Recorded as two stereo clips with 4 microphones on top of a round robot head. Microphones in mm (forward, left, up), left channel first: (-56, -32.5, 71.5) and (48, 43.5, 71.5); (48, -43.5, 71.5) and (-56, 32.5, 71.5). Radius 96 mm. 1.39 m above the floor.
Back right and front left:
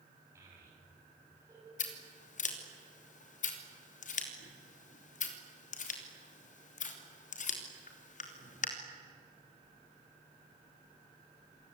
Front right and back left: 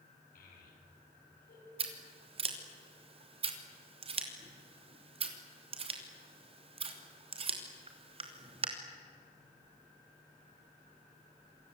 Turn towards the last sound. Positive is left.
turn(degrees=-170)